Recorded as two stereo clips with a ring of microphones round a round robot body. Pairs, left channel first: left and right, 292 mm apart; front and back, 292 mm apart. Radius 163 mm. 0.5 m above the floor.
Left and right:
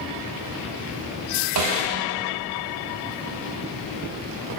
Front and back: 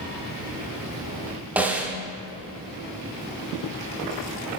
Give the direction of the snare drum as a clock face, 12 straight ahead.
3 o'clock.